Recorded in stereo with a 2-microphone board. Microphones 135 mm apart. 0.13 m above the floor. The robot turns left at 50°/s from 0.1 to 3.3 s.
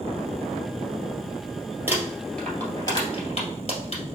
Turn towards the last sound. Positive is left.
turn(degrees=50)  # may be behind; listen again after turning